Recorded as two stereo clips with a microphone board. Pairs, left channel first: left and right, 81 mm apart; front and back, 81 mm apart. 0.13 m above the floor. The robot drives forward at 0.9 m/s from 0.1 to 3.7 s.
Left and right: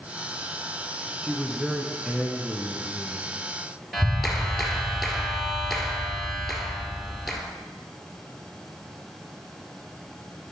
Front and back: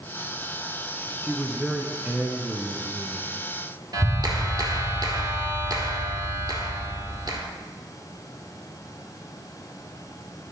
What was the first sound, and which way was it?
A man speaking, 15° right.